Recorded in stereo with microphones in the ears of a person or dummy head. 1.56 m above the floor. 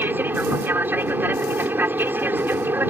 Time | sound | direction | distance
0.0 | an aircraft | 15° right (ahead or behind) | ?